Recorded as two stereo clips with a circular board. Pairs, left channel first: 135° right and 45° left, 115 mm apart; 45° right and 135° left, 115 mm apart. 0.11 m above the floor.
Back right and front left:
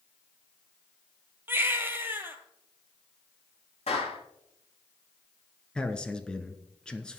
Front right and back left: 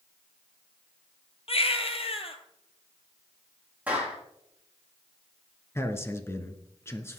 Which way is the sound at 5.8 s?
65° right.